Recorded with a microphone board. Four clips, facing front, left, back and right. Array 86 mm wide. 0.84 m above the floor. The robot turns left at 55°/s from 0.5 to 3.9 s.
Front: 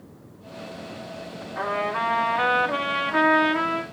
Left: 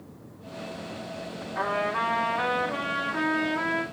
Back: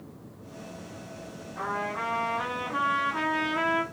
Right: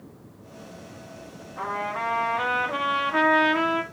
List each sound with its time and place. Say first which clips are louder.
1.6 s a trumpet: left 2 dB, front 6 dB; 50° left, 2.5 m; by 3.8 s 75° right, 2.5 m